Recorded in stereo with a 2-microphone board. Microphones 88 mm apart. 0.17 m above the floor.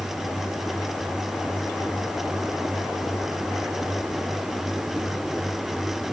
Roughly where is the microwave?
I don't hear a microwave.